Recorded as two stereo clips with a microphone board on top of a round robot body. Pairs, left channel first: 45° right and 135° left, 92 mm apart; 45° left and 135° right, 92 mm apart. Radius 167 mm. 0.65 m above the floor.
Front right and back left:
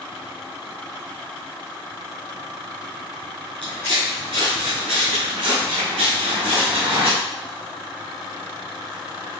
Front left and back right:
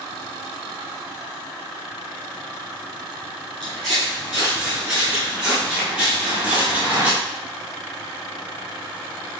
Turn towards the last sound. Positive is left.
turn(degrees=150)